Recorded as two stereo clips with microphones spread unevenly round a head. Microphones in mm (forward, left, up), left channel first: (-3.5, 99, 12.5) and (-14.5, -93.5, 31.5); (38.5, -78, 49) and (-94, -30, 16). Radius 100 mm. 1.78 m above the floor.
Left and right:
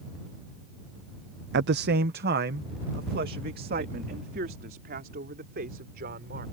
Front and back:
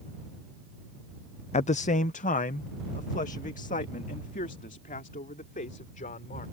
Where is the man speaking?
55° right; by 6.4 s 45° right.